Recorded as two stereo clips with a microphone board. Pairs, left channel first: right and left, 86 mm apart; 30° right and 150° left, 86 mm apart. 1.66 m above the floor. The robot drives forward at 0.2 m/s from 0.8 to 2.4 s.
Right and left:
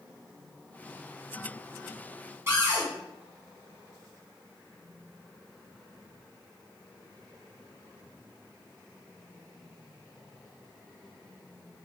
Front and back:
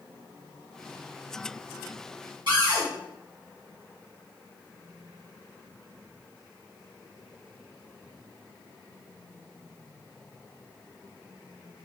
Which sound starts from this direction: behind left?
A cupboard door, at 2.5 s.